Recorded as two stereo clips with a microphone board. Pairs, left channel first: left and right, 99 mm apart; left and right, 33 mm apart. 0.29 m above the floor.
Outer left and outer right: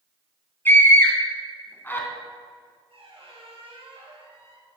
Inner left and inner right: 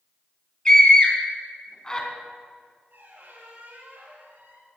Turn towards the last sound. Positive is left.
turn(degrees=-65)  # may be behind; listen again after turning